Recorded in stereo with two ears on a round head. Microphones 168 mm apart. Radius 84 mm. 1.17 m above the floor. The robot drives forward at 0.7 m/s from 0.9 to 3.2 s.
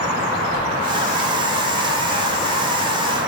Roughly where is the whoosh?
Right.